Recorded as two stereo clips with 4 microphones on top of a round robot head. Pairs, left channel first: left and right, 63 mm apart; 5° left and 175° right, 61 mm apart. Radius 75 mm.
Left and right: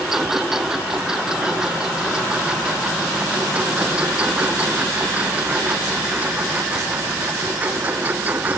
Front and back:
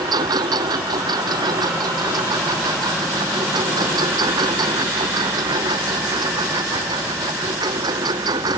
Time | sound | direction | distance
0.0 | a lawn mower | 175° right | ?